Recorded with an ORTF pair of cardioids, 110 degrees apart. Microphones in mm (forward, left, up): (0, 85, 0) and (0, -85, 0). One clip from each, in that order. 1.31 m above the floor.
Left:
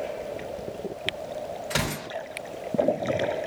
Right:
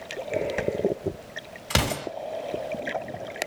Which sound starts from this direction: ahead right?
An explosion, at 1.7 s.